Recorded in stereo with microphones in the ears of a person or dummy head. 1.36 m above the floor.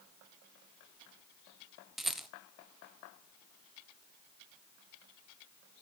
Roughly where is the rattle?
Centre.